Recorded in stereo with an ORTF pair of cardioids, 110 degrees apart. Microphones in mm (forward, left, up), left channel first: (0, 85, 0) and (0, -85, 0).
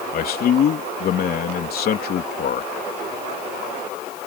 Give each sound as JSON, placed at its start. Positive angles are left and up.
{"t": 0.1, "sound": "a man speaking", "azimuth_deg": 60}